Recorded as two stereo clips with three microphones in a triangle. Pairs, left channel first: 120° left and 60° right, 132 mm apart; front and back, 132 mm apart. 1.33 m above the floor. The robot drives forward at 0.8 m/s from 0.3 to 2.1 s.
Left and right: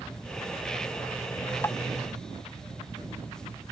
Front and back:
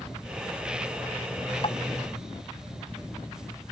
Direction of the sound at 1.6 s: 50° left.